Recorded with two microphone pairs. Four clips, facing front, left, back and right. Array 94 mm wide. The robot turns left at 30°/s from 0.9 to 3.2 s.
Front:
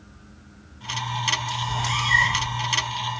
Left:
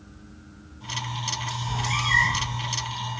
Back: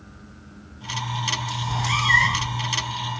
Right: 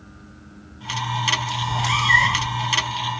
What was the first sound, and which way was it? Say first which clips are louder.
A cat meowing: right 6 dB, back 4 dB; 100° right.